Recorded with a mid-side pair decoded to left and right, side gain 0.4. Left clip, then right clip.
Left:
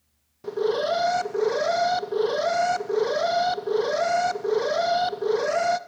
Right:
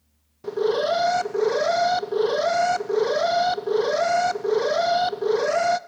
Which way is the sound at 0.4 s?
15° right.